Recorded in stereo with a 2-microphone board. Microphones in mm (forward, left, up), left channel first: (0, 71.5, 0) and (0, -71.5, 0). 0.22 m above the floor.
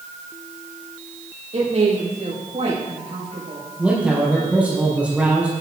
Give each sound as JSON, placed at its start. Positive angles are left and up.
{"t": 1.5, "sound": "a woman speaking", "side_deg": -55, "distance_m": 7.5}
{"t": 3.8, "sound": "a man speaking", "side_deg": -10, "distance_m": 5.0}